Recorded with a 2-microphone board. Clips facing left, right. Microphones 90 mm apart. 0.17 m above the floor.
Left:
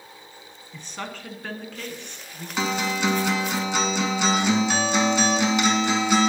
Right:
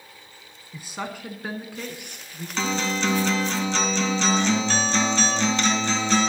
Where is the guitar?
15° left (ahead or behind), 1.4 m.